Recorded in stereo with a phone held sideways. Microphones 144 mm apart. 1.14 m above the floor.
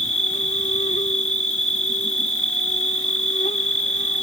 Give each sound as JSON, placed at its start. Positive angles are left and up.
{"t": 0.0, "sound": "an insect", "side_deg": 55}